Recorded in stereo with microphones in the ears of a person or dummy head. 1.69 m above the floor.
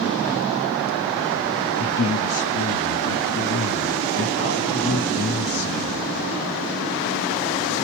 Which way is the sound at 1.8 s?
85° left.